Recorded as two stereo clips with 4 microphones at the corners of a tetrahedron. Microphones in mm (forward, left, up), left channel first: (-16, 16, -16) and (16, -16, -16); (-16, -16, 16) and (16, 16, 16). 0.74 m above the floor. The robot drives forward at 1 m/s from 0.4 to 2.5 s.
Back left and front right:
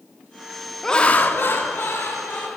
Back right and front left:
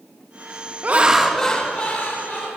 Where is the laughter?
60° left, 0.5 m; by 2.5 s 170° left, 1.6 m.